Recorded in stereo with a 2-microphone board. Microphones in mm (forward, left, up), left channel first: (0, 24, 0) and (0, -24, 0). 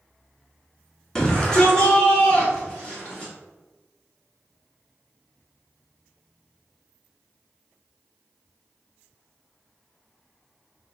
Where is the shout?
15° left (ahead or behind), 1.1 m; by 3.3 s 20° left (ahead or behind), 2 m.